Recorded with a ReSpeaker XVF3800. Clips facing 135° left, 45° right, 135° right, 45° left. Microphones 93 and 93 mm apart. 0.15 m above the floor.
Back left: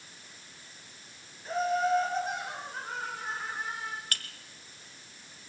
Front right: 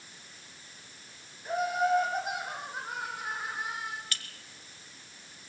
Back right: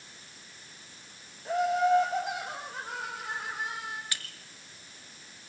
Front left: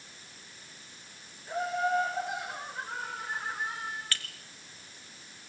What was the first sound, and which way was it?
Laughter, 125° right.